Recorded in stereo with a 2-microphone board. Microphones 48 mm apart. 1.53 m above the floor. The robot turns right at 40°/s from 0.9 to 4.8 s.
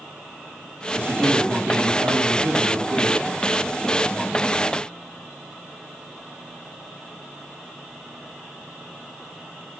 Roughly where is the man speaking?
Behind right.